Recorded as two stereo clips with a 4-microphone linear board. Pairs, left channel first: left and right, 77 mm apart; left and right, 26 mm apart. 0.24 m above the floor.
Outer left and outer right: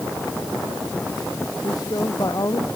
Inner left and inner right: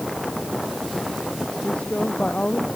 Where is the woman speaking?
45° left (ahead or behind).